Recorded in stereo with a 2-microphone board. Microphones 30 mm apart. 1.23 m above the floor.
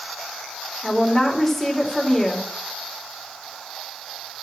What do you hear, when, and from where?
0.8 s a woman speaking: 10° left (ahead or behind), 3 m